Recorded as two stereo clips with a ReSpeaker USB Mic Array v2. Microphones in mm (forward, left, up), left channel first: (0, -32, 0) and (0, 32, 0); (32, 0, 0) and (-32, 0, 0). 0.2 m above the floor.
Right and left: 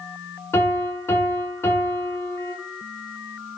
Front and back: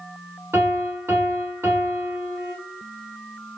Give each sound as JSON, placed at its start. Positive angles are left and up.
{"t": 0.5, "sound": "a piano", "azimuth_deg": -140, "distance_m": 0.8}